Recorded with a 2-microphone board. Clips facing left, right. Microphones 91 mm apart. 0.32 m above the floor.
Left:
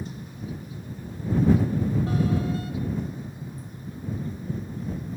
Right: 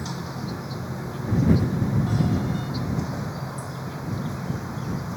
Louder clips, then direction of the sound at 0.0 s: Right 5 dB; 85° right.